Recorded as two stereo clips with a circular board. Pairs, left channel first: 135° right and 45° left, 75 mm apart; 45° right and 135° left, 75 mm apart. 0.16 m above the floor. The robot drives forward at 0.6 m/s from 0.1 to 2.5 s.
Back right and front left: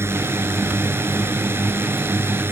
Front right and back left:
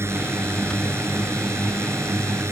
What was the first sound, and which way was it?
A drone, 90° left.